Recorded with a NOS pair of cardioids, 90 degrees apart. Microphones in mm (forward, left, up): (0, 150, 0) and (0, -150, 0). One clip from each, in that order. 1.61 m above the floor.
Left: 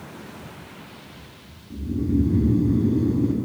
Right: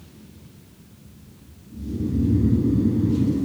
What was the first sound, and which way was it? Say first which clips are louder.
Snoring: left 3 dB; 45° left.